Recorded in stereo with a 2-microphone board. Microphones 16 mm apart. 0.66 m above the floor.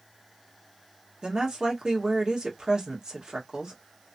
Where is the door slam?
No door slam in this recording.